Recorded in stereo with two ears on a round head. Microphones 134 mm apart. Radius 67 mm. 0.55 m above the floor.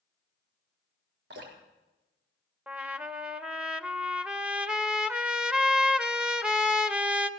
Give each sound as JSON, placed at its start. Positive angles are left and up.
{"t": 1.3, "sound": "dripping", "side_deg": -80, "distance_m": 3.5}
{"t": 2.7, "sound": "a trumpet", "side_deg": -5, "distance_m": 0.7}